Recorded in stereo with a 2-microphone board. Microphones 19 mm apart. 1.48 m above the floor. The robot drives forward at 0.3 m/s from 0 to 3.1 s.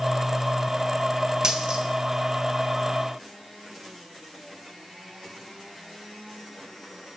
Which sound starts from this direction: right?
A dropped coin, at 1.4 s.